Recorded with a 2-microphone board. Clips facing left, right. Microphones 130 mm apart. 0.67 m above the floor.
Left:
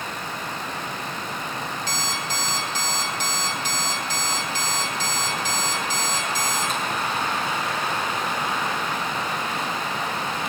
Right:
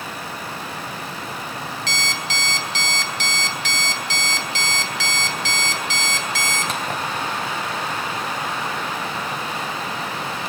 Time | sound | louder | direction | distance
1.9 | an alarm clock | right 1 dB | 80° right | 2.5 m